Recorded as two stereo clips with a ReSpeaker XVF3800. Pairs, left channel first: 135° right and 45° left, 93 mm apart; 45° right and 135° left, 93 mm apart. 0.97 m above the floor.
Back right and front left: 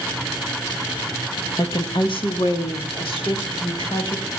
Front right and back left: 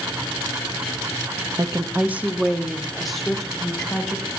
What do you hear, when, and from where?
1.6 s a woman speaking: straight behind, 1.1 m; by 4.3 s 125° right, 4.5 m